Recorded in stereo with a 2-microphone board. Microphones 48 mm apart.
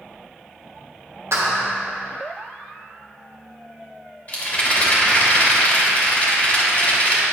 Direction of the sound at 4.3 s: 35° left (ahead or behind).